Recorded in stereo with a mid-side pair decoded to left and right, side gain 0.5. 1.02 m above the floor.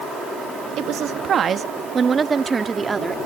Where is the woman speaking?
65° right; by 3.1 s 20° right.